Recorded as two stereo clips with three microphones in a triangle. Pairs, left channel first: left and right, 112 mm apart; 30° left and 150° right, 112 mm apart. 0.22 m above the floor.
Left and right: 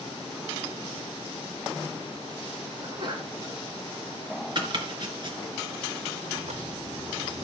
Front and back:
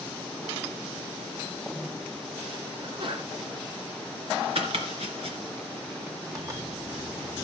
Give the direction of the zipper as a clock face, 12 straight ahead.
3 o'clock.